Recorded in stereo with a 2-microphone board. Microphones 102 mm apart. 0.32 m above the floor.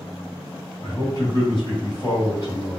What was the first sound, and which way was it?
A man speaking, 35° left (ahead or behind).